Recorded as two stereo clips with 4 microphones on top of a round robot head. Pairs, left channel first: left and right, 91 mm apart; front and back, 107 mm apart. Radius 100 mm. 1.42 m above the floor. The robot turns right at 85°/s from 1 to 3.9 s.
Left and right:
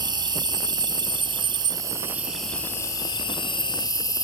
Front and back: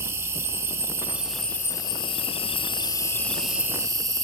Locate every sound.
0.0 s an insect: 120° right, 1.2 m; by 4.2 s 125° left, 1.2 m